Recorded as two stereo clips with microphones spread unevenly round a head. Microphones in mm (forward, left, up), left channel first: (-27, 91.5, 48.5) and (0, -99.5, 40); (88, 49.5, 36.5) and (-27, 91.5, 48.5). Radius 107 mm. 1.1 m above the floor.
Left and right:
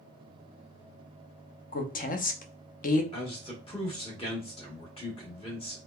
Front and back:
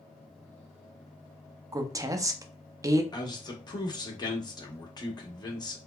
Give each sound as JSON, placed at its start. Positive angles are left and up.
{"t": 1.7, "sound": "a woman speaking", "azimuth_deg": 100, "distance_m": 0.6}
{"t": 3.1, "sound": "a man speaking", "azimuth_deg": 35, "distance_m": 1.1}